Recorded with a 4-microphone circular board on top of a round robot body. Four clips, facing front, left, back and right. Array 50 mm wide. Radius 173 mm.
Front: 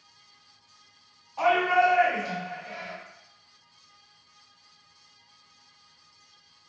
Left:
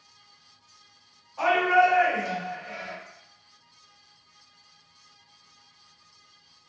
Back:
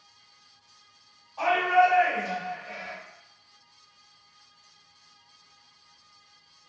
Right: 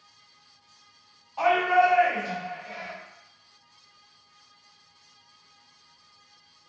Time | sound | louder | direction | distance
1.4 | a shout | even, even | 70° right | 1.6 m